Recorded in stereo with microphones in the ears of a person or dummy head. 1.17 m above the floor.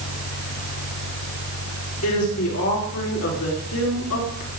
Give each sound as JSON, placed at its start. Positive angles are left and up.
{"t": 2.0, "sound": "a woman speaking", "side_deg": 85, "distance_m": 4.0}